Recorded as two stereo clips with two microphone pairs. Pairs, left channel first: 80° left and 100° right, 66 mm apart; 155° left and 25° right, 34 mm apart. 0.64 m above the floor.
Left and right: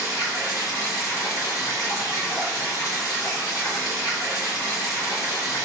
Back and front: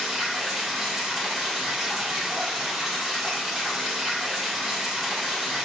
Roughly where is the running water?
Ahead left.